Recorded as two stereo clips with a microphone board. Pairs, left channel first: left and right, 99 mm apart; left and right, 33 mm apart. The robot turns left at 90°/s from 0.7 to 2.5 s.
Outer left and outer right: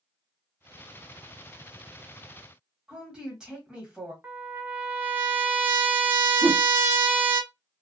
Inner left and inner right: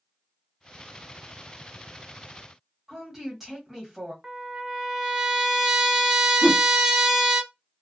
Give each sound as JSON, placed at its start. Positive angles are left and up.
{"t": 2.9, "sound": "a woman speaking", "side_deg": -10, "distance_m": 1.3}
{"t": 4.2, "sound": "a trumpet", "side_deg": -20, "distance_m": 0.6}
{"t": 6.4, "sound": "a whoosh", "side_deg": -40, "distance_m": 0.5}